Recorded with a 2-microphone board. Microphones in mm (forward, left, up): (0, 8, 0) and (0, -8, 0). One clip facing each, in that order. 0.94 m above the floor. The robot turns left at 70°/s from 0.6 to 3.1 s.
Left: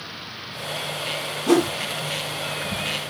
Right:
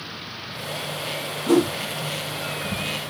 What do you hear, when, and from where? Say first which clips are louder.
1.5 s a whoosh: even; 70° left (ahead or behind), 0.9 m; by 1.7 s 60° left (ahead or behind), 0.9 m